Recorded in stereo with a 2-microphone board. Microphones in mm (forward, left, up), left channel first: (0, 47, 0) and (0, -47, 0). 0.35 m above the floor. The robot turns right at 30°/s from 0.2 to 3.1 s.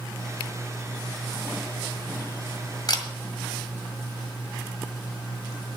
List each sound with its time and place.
2.9 s a camera shutter: 50° left (ahead or behind), 1.8 m